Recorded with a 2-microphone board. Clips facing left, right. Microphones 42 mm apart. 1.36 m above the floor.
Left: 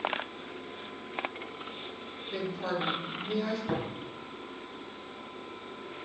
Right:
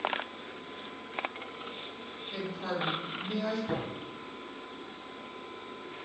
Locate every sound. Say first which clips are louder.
2.3 s a woman speaking: left 2 dB; 30° left (ahead or behind), 4 m
3.7 s tapping: left 1 dB; 25° left (ahead or behind), 4 m